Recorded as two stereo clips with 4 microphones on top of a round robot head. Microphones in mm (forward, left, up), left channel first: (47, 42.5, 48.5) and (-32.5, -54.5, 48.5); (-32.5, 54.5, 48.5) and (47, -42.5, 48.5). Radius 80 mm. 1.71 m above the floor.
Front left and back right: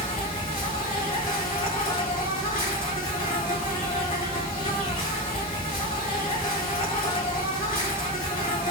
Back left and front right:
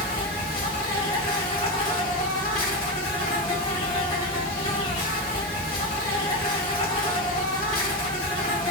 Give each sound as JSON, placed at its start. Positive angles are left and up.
{"t": 0.0, "sound": "an insect", "azimuth_deg": 90, "distance_m": 1.9}